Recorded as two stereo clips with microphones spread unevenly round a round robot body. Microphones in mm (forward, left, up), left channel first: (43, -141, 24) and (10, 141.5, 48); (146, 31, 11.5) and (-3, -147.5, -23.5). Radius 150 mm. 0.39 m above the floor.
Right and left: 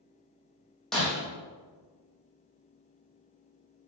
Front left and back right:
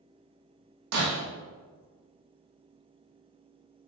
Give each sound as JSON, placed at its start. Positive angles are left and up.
{"t": 0.9, "sound": "breaking glass", "azimuth_deg": -170, "distance_m": 4.5}